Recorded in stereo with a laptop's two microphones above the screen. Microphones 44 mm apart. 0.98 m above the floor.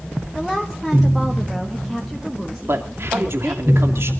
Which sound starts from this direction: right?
A man speaking, at 2.7 s.